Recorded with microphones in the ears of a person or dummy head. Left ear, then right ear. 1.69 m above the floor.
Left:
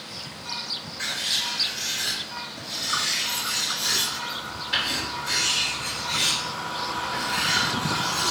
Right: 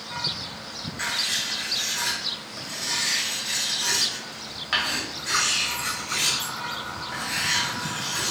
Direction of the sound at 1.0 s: 50° right (ahead or behind).